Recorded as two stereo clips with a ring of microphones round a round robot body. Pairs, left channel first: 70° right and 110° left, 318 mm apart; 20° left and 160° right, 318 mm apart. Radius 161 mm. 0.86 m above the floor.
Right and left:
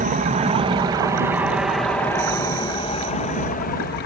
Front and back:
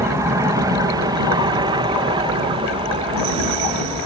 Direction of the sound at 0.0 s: 135° left.